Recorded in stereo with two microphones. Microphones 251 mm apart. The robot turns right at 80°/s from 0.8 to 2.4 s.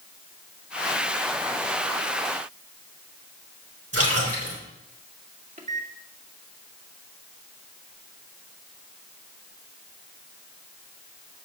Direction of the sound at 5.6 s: 35° right (ahead or behind).